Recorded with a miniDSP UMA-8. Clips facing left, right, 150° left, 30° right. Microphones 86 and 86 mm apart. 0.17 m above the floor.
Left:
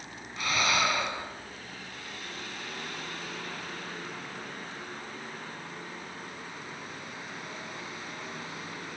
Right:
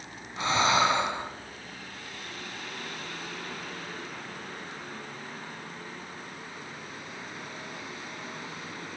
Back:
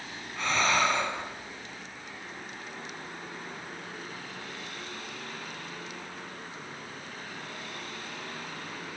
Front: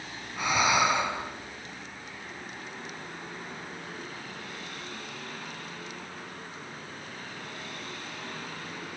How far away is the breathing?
About 1.7 m.